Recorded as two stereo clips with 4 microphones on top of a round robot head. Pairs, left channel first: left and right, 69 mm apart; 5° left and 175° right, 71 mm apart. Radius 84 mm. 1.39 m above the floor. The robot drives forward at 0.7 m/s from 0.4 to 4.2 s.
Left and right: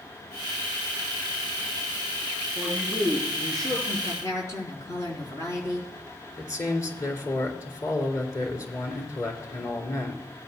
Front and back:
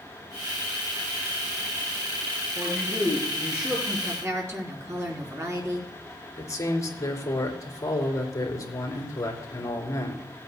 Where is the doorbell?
No doorbell in this recording.